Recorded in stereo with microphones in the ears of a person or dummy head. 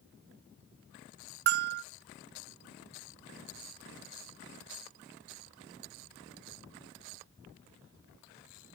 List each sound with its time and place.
1.5 s a bell: 45° right (ahead or behind), 0.5 m